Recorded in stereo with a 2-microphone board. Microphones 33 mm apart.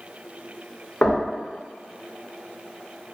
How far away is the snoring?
I don't hear snoring.